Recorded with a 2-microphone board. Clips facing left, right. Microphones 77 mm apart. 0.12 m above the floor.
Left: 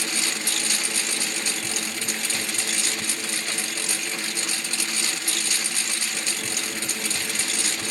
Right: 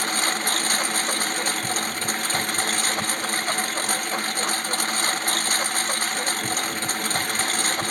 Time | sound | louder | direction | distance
0.0 | a lawn mower | right 5 dB | 45° right (ahead or behind) | ?